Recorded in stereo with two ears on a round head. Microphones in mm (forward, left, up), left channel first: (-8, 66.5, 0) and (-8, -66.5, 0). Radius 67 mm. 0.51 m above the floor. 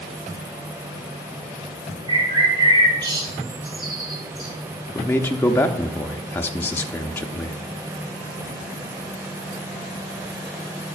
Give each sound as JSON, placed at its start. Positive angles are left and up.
{"t": 2.1, "sound": "a bird", "side_deg": -30, "distance_m": 3.0}
{"t": 4.9, "sound": "a man speaking", "side_deg": 15, "distance_m": 0.7}